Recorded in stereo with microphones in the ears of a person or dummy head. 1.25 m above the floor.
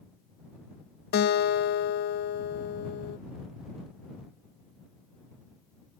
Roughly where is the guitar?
Left.